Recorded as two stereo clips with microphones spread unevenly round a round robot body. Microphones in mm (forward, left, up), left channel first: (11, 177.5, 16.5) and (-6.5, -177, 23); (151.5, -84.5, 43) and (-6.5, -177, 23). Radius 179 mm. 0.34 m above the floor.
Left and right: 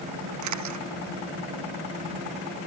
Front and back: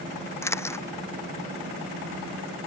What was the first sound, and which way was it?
A camera shutter, 45° right.